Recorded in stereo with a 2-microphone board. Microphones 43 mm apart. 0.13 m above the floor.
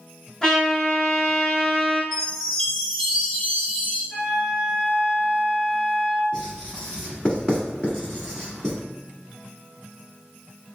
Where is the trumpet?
15° left (ahead or behind), 1.0 m.